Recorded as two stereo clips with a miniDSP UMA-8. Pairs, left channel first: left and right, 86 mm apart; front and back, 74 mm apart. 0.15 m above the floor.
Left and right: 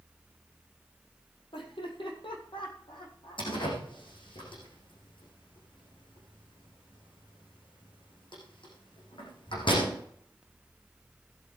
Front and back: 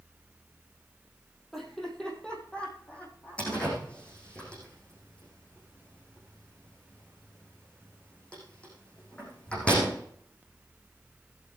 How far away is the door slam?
About 7 m.